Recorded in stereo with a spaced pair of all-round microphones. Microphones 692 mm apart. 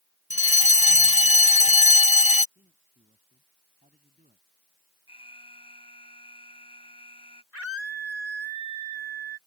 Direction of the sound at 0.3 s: 10° left (ahead or behind).